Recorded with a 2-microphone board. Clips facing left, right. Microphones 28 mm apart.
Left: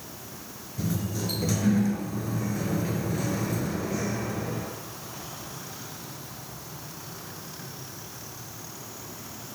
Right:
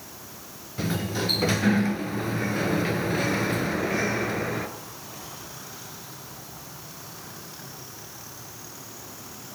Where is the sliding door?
45° right (ahead or behind), 2 m.